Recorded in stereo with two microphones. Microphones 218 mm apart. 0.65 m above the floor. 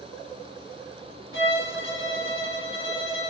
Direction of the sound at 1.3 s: 60° left (ahead or behind).